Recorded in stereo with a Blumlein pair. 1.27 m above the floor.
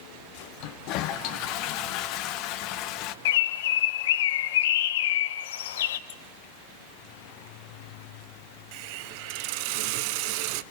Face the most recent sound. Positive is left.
turn(degrees=-45)